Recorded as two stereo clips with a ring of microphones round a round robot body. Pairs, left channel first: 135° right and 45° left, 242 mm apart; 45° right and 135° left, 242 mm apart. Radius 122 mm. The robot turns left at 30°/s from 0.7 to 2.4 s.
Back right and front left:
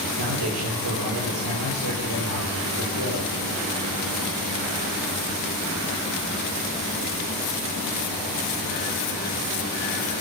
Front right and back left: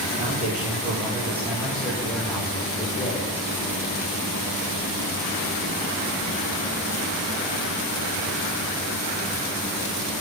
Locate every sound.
0.2 s a man speaking: 75° left, 9 m; by 3.4 s 20° left, 9 m